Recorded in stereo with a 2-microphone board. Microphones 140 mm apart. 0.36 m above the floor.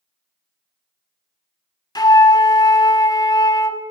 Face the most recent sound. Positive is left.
turn(degrees=30)  # may be behind; listen again after turning